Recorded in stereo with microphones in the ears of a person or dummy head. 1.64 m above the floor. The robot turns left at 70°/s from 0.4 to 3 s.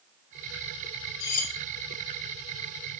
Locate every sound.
1.2 s cutlery clinking: 50° left (ahead or behind), 1.4 m; by 1.5 s 35° left (ahead or behind), 1.4 m